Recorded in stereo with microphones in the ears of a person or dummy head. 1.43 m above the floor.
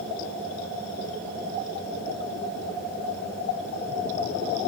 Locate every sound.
Only background noise.